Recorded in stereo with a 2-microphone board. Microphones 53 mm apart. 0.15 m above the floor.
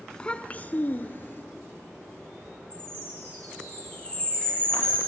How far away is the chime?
About 7 m.